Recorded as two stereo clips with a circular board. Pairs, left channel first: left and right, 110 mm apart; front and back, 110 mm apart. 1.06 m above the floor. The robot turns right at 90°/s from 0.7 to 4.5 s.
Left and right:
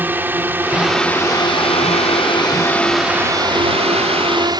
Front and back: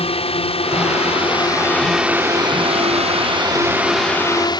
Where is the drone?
20° right; by 4.6 s 45° right.